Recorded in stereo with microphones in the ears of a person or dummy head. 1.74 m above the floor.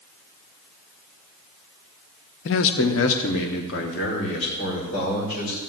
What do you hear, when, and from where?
2.5 s a man speaking: 60° left (ahead or behind), 0.5 m; by 5.6 s 50° left (ahead or behind), 2 m